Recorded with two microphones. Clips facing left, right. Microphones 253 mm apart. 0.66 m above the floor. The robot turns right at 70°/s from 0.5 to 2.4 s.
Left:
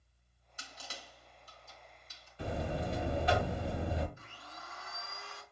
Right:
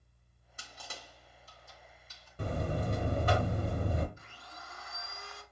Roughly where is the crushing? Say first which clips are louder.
Right 1 dB; right.